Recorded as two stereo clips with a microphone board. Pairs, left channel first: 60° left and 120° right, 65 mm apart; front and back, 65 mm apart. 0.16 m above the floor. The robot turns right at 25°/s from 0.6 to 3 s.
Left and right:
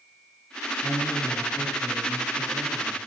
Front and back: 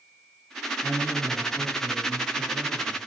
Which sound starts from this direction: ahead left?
A man speaking, at 0.8 s.